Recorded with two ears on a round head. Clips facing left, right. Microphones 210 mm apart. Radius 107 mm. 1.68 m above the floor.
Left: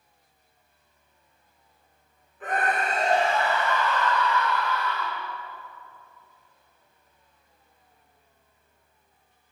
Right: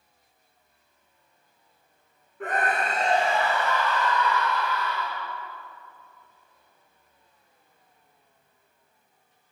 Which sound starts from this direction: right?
A scream, at 2.4 s.